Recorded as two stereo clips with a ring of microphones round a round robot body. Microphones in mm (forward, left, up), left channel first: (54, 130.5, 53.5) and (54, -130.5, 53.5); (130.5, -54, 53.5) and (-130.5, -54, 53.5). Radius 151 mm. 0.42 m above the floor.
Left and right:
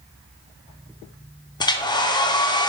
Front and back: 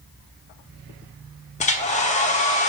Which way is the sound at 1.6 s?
30° left.